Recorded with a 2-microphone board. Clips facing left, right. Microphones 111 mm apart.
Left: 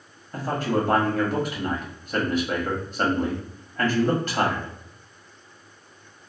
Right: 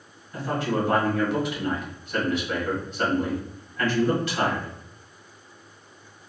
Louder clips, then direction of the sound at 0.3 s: Left 1 dB; 45° left (ahead or behind).